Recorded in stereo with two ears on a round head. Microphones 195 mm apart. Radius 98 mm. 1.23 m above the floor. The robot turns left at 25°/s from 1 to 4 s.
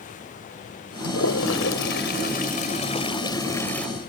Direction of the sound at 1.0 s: 75° left (ahead or behind).